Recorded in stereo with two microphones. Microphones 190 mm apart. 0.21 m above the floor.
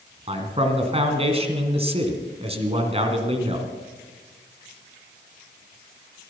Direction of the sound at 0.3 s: 30° right (ahead or behind).